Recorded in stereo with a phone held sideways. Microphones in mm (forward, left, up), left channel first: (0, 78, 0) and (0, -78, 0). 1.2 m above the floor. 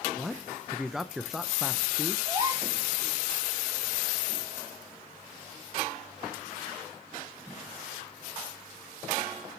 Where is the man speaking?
Centre (ahead or behind), 0.5 m.